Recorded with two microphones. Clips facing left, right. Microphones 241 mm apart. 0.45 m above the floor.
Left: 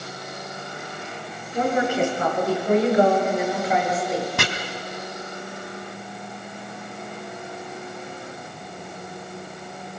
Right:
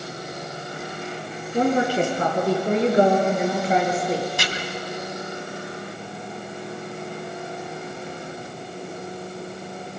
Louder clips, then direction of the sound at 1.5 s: Right 2 dB; 35° right (ahead or behind).